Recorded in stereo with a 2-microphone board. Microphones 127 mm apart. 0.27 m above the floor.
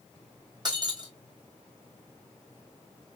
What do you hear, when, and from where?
0.7 s breaking glass: 35° right (ahead or behind), 2 m